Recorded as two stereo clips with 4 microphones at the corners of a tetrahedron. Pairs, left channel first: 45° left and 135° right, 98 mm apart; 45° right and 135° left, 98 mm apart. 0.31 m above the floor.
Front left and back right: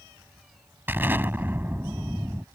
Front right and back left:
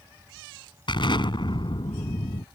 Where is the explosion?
70° right.